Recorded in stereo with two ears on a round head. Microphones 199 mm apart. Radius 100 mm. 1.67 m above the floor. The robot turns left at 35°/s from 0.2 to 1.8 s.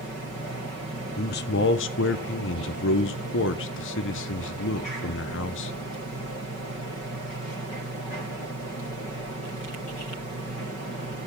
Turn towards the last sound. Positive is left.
turn(degrees=60)  # may be behind; listen again after turning